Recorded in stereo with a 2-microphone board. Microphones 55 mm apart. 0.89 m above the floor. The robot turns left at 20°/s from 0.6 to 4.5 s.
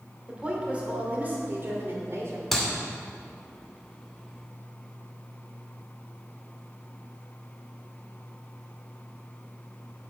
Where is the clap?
Centre (ahead or behind), 2.5 m.